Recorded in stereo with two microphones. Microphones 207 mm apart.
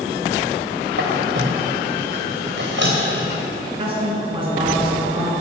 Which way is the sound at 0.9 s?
60° right (ahead or behind).